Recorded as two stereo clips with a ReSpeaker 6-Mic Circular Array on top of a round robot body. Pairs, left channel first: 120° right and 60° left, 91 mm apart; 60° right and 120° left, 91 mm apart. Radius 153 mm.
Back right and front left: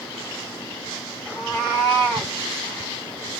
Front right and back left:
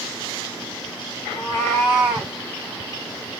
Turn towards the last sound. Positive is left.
turn(degrees=170)